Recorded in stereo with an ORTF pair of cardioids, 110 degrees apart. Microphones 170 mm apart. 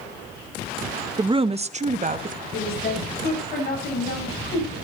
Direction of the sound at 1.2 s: 25° right.